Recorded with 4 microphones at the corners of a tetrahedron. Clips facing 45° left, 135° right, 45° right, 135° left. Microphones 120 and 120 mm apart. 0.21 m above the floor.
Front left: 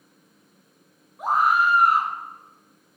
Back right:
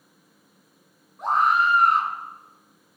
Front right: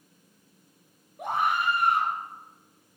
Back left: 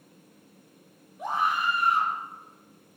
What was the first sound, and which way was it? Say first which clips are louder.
A scream: even, front right 1 dB; 40° right.